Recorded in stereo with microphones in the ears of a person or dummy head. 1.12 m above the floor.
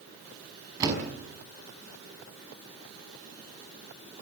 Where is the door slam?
20° right (ahead or behind), 6 m.